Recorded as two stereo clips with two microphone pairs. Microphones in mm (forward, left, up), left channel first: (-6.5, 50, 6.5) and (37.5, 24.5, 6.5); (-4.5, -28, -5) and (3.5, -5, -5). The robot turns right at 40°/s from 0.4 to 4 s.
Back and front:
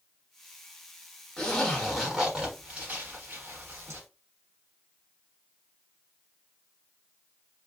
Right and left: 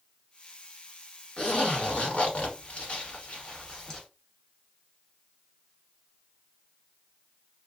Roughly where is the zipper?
Behind right.